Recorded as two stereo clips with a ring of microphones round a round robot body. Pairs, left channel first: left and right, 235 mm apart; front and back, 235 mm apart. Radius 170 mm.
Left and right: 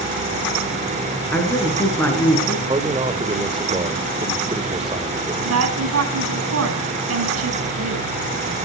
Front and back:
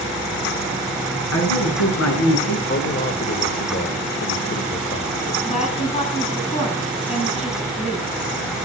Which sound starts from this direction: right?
A woman speaking, at 5.5 s.